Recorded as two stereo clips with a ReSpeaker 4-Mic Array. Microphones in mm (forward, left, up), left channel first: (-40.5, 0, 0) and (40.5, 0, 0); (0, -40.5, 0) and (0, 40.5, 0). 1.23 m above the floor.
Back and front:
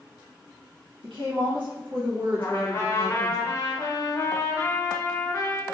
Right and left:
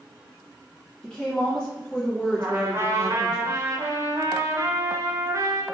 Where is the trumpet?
135° left, 0.6 m.